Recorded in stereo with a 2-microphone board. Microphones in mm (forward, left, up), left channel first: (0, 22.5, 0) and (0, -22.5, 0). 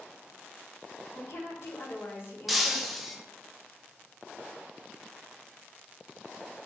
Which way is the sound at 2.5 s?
Centre (ahead or behind).